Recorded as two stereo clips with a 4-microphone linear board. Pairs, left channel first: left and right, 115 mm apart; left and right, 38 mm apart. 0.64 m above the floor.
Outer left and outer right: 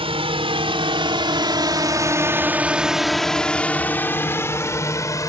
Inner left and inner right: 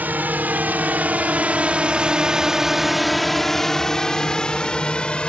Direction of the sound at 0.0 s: 55° right (ahead or behind).